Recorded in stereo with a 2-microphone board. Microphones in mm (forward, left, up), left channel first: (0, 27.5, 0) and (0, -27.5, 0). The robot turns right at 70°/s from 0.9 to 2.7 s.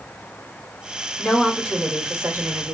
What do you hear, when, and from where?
1.2 s a woman speaking: 165° left, 1.6 m; by 2.7 s 90° right, 1.6 m